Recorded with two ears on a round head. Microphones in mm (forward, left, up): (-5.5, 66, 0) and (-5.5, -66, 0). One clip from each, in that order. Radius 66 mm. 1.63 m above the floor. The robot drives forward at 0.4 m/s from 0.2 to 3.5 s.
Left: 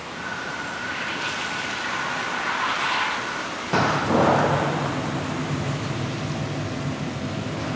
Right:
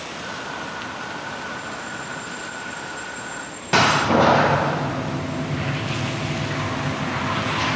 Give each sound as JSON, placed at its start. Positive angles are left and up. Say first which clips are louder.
{"t": 3.7, "sound": "a door slam", "louder": "right 4 dB", "side_deg": -55, "distance_m": 0.6}